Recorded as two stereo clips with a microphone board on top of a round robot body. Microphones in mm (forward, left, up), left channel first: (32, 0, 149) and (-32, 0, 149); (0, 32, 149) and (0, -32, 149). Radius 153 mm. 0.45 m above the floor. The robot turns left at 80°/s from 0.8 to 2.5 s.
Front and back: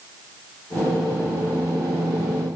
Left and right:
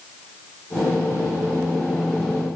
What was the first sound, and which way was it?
Only background noise.